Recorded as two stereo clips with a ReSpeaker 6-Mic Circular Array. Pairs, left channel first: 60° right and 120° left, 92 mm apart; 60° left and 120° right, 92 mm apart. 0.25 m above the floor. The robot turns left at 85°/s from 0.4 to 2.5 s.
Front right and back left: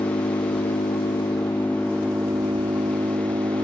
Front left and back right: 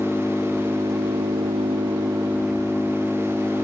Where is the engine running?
25° right; by 3.6 s 155° left.